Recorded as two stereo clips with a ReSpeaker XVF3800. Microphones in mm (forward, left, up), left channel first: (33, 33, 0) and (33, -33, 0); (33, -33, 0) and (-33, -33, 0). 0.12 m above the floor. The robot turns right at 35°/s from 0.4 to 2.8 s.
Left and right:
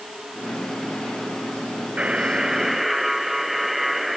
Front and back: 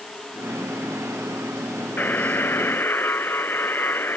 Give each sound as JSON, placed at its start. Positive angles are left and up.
{"t": 2.0, "sound": "a buzzer", "azimuth_deg": -35}